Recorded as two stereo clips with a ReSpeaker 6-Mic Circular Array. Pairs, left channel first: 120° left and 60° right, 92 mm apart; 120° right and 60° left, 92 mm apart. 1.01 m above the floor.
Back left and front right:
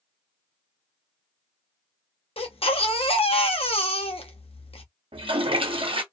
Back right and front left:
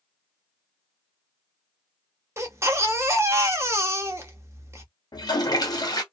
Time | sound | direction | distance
2.4 | a baby crying | 120° left | 0.7 m
5.1 | a toilet flushing | 75° right | 0.8 m